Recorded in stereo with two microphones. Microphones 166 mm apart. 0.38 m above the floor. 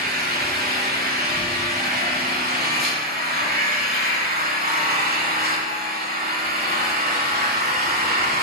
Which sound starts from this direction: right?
An engine running, at 0.0 s.